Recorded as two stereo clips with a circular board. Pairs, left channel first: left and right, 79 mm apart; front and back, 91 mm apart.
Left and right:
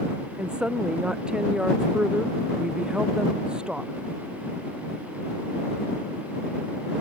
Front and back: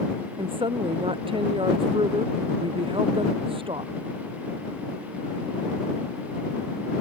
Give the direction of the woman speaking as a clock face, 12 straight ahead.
6 o'clock.